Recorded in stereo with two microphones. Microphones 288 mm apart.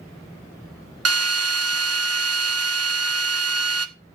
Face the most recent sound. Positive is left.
turn(degrees=-55)  # may be behind; listen again after turning